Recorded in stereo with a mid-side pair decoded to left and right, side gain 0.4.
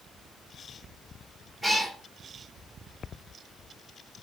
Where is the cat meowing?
Straight ahead, 1.8 m.